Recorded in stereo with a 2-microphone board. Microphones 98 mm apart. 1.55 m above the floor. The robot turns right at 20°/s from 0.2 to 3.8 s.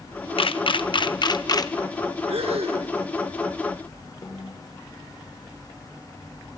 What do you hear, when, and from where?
0.4 s a camera shutter: 65° left (ahead or behind), 0.9 m; by 1.7 s 40° left (ahead or behind), 0.9 m
2.3 s breathing: 80° right, 1.9 m; by 2.9 s 90° right, 1.9 m
4.2 s a snare drum: 40° left (ahead or behind), 6.5 m